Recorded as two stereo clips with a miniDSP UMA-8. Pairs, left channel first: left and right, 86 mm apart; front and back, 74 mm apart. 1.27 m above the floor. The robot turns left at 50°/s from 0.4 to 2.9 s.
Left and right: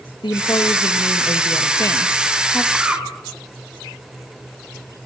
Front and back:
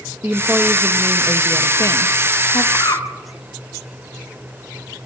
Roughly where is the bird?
Ahead.